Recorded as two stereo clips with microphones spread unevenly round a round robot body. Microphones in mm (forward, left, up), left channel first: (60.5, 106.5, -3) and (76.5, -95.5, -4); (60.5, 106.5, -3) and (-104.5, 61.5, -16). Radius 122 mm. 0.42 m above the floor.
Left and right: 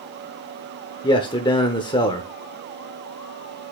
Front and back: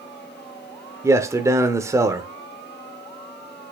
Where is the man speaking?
145° left, 0.8 m.